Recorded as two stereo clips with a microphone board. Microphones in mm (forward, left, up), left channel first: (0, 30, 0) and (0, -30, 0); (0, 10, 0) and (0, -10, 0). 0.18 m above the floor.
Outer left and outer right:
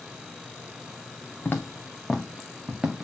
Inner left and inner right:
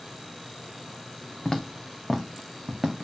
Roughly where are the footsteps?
Left.